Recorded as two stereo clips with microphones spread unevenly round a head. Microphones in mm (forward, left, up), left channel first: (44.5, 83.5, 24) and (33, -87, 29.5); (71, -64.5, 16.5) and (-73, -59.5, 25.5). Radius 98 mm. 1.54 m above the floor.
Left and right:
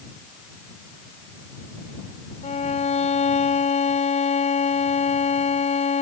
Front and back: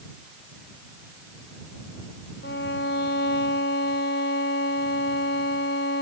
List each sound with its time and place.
2.4 s a violin: 35° left